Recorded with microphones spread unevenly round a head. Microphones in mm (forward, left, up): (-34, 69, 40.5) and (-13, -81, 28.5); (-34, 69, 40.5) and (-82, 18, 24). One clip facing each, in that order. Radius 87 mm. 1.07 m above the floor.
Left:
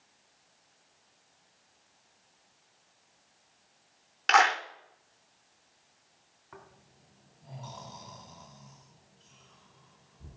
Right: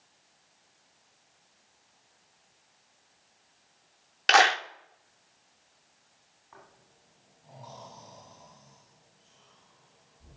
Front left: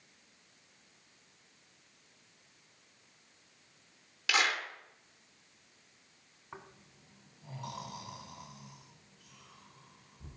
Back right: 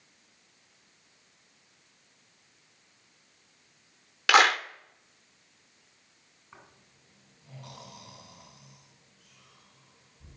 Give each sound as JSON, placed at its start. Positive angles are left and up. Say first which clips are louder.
{"t": 4.3, "sound": "a clap", "louder": "right 2 dB, back right 10 dB", "azimuth_deg": -135, "distance_m": 0.7}
{"t": 6.5, "sound": "snoring", "louder": "left 2 dB, front left 4 dB", "azimuth_deg": 60, "distance_m": 2.5}